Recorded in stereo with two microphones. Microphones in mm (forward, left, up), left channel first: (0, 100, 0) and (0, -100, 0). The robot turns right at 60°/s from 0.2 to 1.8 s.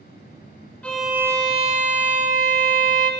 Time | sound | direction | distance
0.8 | a violin | 170° left | 0.5 m